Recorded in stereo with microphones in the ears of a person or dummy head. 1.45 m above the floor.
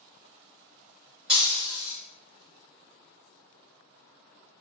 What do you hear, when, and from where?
1.3 s breaking glass: 5° right (ahead or behind), 1.0 m